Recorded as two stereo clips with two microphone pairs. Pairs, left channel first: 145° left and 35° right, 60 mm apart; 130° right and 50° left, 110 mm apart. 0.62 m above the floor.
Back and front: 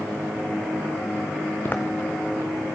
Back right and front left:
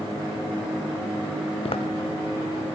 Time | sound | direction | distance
1.6 | footsteps | 160° right | 1.9 m